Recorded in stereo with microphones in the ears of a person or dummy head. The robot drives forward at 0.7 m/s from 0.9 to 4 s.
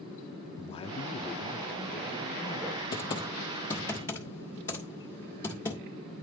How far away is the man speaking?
About 0.6 m.